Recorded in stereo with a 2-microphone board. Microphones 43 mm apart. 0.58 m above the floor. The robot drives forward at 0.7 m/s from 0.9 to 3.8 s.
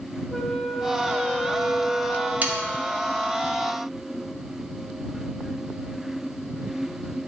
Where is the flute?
5° left (ahead or behind), 0.6 m; by 2.3 s centre (ahead or behind), 1.4 m.